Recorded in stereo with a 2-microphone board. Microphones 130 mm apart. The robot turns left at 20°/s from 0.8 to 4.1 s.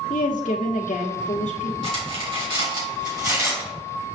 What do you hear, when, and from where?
0.1 s a woman speaking: 80° left, 1.1 m; by 1.7 s 70° left (ahead or behind), 1.1 m
1.8 s cutlery clinking: 55° right (ahead or behind), 4 m; by 3.8 s 15° right (ahead or behind), 4 m